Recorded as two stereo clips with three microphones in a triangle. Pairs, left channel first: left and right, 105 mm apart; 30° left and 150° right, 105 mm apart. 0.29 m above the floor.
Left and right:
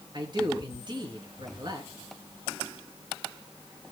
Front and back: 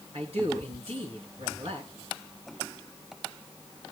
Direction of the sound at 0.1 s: 130° right.